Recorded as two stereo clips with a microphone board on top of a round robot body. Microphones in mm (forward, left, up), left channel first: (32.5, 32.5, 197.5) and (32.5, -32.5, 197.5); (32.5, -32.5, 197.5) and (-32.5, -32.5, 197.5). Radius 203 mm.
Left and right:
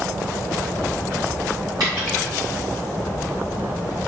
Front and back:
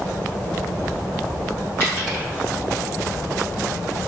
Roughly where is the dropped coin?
Ahead right.